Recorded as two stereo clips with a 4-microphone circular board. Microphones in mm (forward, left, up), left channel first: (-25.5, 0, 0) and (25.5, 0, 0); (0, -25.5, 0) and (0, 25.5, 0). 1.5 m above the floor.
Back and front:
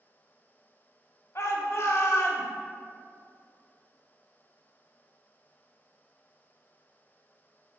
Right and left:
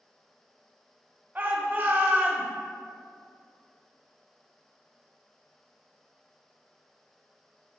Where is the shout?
145° left, 0.7 m.